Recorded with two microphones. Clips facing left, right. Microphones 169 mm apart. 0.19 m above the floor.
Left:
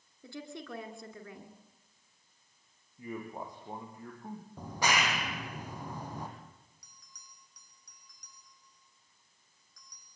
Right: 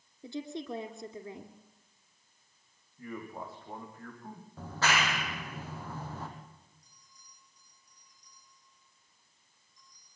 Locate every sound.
0.2 s a woman speaking: 20° right (ahead or behind), 2.5 m
3.0 s a man speaking: 15° left (ahead or behind), 9.5 m
4.6 s a clap: 15° left (ahead or behind), 5.5 m
6.8 s a bell: 85° left, 6.5 m